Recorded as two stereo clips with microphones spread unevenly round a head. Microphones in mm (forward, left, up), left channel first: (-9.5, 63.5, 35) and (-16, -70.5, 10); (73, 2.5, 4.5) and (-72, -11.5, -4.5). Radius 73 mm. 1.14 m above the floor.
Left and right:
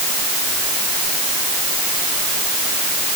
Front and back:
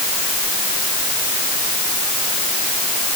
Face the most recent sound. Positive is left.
No sound to turn to.